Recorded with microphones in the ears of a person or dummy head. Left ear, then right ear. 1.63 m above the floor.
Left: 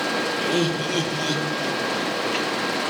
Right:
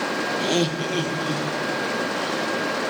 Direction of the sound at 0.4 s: 30° right (ahead or behind).